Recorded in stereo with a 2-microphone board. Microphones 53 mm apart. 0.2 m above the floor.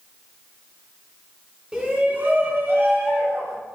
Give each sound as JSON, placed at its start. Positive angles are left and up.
{"t": 1.7, "sound": "a shout", "side_deg": -15, "distance_m": 2.0}